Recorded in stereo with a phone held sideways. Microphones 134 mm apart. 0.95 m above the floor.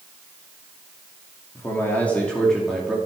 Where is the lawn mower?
I don't hear a lawn mower.